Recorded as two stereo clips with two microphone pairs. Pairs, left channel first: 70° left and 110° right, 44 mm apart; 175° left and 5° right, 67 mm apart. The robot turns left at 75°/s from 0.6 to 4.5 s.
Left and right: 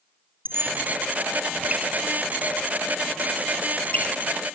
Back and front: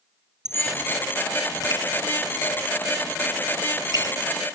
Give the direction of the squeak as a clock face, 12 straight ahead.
3 o'clock.